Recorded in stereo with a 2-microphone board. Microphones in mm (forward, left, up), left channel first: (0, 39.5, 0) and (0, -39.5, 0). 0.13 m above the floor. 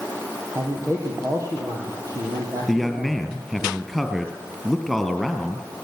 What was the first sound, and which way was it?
A man speaking, 40° right (ahead or behind).